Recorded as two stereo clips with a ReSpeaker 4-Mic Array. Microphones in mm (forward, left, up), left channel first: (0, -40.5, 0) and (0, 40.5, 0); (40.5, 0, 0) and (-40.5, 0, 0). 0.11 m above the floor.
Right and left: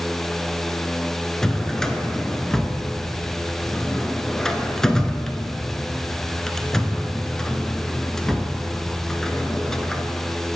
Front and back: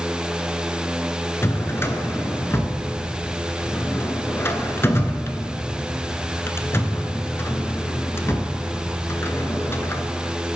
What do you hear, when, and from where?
1.4 s a drawer: 10° right, 0.5 m